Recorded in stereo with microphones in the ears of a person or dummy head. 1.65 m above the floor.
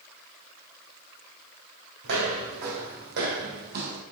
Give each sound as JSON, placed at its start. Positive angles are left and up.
{"t": 2.0, "sound": "footsteps", "side_deg": -55, "distance_m": 3.5}